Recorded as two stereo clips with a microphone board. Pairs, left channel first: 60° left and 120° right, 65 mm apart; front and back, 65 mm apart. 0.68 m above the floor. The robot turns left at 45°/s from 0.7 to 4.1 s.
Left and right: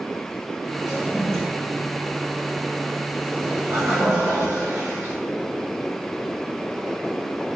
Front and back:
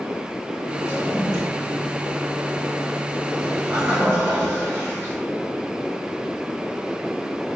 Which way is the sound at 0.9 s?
15° left.